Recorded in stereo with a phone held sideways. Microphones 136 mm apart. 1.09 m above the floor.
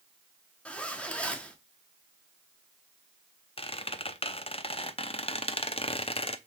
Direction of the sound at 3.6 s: 45° left (ahead or behind).